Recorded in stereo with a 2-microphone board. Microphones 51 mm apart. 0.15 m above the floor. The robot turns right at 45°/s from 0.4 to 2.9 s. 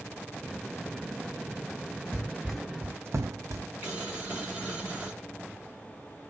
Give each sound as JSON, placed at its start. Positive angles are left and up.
{"t": 2.1, "sound": "running footsteps", "side_deg": 35, "distance_m": 1.2}
{"t": 3.8, "sound": "boiling", "side_deg": -25, "distance_m": 1.6}